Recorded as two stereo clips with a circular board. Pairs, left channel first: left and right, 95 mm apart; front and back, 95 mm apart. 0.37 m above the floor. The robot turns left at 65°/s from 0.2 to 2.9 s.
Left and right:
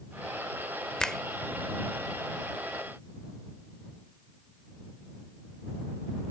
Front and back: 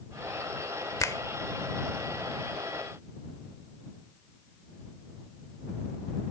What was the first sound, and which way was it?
A finger snap, 20° left.